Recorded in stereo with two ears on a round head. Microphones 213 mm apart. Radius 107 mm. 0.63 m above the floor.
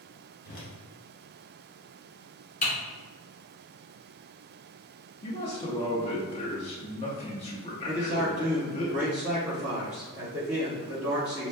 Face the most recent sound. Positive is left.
turn(degrees=-5)  # may be behind; listen again after turning